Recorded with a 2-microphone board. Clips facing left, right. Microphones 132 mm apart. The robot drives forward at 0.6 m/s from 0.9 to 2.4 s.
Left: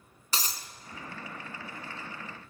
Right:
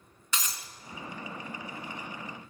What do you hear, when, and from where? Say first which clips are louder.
0.3 s breaking glass: left 1 dB; 35° left (ahead or behind), 0.9 m